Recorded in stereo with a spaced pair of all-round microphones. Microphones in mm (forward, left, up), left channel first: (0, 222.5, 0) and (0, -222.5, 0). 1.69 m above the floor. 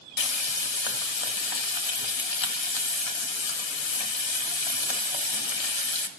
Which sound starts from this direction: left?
Frying, at 0.2 s.